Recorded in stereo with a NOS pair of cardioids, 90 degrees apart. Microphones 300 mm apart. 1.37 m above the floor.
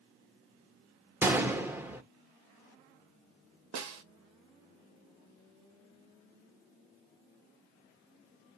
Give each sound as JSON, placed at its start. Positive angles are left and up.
{"t": 1.2, "sound": "a gunshot", "azimuth_deg": -5, "distance_m": 0.8}
{"t": 3.7, "sound": "a snare drum", "azimuth_deg": -65, "distance_m": 1.1}